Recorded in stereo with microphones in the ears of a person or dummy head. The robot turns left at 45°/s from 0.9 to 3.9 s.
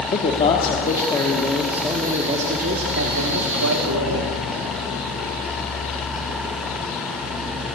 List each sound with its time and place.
0.1 s a man speaking: 35° left, 2 m; by 4.3 s 100° right, 2 m